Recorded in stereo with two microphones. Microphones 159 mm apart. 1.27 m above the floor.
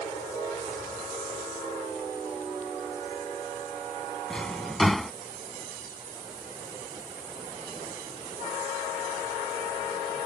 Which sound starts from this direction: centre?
A drawer, at 4.3 s.